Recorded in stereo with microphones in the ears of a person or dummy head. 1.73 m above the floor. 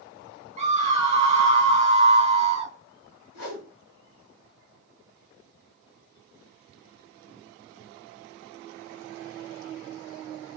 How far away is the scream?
About 0.7 m.